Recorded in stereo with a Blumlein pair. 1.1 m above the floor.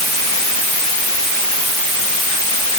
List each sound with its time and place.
Only background noise.